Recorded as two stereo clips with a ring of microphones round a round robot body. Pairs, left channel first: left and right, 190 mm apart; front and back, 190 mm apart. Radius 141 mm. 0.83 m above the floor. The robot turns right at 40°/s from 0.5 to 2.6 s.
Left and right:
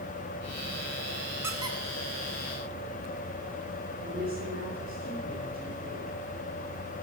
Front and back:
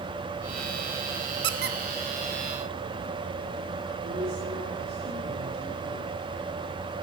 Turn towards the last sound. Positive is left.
turn(degrees=-135)